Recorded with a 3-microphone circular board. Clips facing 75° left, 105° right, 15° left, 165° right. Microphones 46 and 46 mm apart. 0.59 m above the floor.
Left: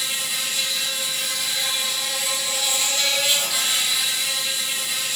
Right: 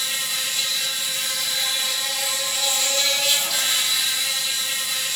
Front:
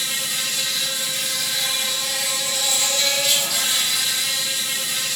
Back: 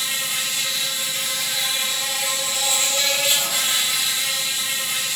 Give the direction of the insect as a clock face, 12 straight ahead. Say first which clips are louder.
Even, back 1 dB; 7 o'clock.